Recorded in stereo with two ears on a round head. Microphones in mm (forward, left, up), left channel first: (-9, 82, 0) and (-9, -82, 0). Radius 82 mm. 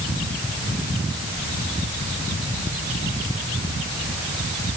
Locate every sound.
Only background noise.